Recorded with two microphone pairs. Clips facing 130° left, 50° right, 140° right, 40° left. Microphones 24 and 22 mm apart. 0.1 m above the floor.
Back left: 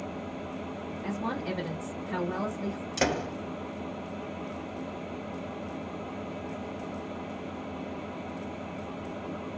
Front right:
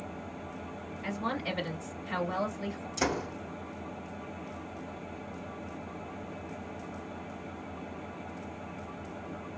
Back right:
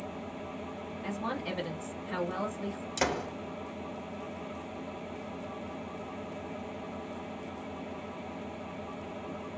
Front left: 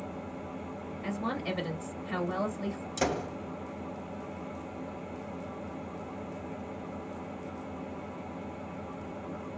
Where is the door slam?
160° left, 1.6 m.